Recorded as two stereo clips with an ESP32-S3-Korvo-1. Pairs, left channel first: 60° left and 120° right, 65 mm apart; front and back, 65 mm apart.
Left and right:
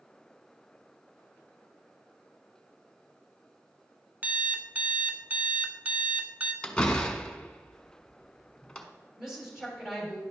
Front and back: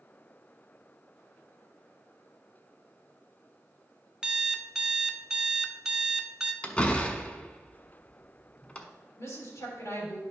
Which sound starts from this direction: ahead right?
A woman speaking, at 9.2 s.